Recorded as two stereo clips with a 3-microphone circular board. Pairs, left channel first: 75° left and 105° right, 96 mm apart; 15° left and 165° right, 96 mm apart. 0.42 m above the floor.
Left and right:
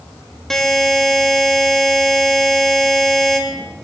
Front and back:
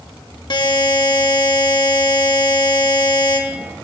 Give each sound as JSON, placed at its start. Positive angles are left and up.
{"t": 0.5, "sound": "a buzzer", "azimuth_deg": -10, "distance_m": 0.7}